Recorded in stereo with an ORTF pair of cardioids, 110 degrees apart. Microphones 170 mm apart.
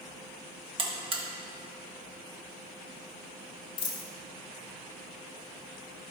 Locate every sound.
0.8 s a buzzer: 35° right, 1.4 m
3.8 s a dropped coin: 35° left, 1.8 m